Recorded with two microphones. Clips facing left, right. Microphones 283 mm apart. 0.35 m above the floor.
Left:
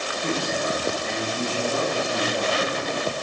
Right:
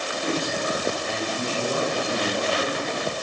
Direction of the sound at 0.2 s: 15° right (ahead or behind).